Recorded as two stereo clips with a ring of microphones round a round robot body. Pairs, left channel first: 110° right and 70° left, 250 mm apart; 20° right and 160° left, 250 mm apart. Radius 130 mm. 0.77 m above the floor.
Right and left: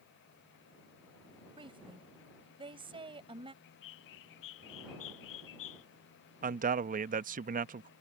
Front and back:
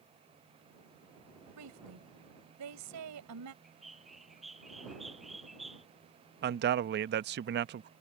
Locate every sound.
1.6 s a woman speaking: 140° left
3.6 s a bird: 115° right
6.4 s a man speaking: 120° left